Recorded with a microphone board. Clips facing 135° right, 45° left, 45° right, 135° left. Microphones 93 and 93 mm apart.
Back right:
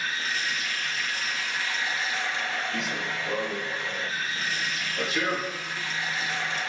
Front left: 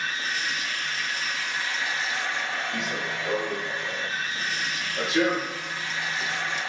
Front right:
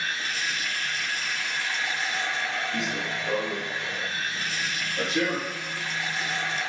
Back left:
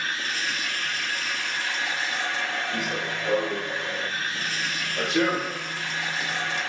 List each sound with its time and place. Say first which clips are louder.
0.0 s running water: front left 1 dB, back left 1 dB; 110° left, 5.5 m
2.7 s running footsteps: front left 1 dB, back left 1 dB; 95° left, 4.5 m; by 6.6 s 120° left, 3 m